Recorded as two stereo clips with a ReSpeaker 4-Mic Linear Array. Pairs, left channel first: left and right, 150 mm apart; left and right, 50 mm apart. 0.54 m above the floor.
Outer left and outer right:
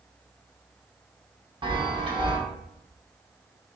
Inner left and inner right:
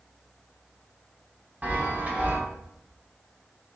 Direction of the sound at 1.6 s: 30° right (ahead or behind).